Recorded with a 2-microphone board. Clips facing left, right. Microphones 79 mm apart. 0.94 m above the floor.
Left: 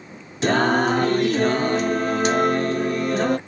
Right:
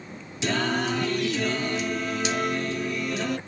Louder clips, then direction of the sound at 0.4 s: Left 7 dB; 45° left (ahead or behind).